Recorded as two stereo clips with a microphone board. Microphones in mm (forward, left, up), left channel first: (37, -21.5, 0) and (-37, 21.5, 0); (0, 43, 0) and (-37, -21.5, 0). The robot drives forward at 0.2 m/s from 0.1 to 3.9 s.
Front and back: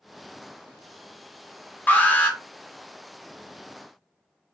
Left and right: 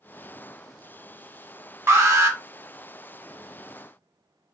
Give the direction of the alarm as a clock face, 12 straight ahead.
3 o'clock.